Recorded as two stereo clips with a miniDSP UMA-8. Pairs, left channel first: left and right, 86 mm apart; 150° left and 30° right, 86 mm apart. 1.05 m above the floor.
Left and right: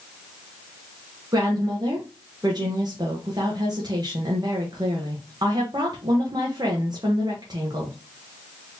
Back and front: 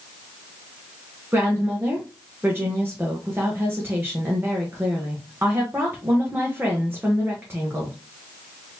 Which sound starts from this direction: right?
A woman speaking, at 1.3 s.